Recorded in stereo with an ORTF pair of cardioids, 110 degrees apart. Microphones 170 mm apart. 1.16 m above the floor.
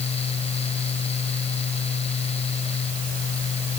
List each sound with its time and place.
0.0 s a fan: 40° left